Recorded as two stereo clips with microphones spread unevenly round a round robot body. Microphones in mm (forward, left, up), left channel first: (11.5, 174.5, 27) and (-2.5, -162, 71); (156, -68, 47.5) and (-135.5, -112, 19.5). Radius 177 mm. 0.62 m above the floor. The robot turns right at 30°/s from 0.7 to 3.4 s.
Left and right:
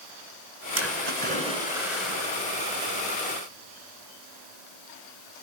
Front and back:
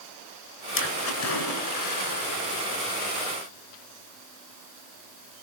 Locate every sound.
0.8 s a splash: 40° right, 6.5 m; by 2.4 s 10° left, 6.5 m